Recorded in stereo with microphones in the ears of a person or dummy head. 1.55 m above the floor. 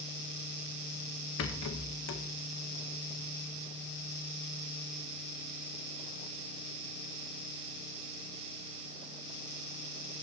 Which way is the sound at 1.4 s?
80° left.